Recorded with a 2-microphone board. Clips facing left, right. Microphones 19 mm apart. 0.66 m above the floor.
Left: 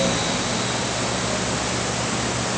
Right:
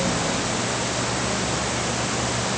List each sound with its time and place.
Only background noise.